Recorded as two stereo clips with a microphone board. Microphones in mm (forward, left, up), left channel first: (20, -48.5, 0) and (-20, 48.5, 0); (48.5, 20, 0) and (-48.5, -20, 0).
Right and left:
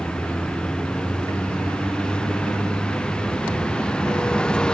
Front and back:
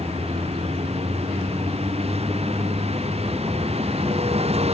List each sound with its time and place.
0.0 s a vehicle: 150° right